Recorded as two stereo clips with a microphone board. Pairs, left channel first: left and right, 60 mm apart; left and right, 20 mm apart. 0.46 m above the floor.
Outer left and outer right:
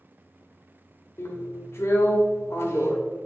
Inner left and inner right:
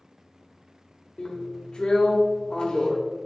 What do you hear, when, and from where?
1.2 s a drill: 50° left (ahead or behind), 1.4 m